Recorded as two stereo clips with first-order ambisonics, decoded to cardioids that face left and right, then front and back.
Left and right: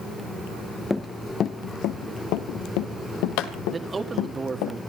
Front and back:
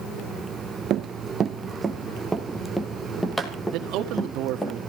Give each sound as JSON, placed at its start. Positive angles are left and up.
{"t": 0.9, "sound": "running footsteps", "azimuth_deg": 165, "distance_m": 0.9}
{"t": 3.7, "sound": "a man speaking", "azimuth_deg": -165, "distance_m": 1.8}